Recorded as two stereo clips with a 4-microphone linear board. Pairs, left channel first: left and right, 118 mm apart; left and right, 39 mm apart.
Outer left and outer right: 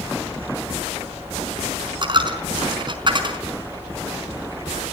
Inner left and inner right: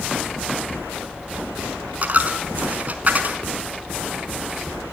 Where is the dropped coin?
40° right (ahead or behind), 4.5 m.